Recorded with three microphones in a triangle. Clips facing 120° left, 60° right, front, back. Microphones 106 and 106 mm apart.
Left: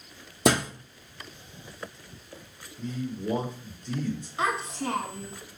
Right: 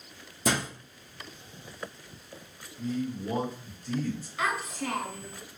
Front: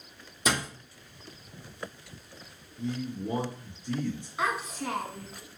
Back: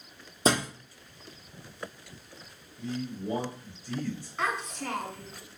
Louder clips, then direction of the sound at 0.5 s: Left 6 dB, back 4 dB; 125° left.